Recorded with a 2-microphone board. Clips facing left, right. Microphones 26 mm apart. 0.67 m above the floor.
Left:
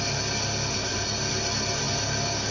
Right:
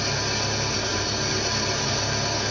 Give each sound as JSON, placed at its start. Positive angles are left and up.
{"t": 0.0, "sound": "an engine running", "side_deg": -20, "distance_m": 0.8}